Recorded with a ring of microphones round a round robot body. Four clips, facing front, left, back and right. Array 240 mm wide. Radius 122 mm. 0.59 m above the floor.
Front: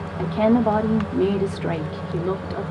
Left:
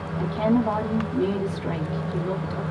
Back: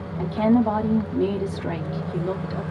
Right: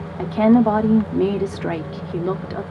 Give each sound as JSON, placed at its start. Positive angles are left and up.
{"t": 0.2, "sound": "a woman speaking", "azimuth_deg": -65, "distance_m": 0.8}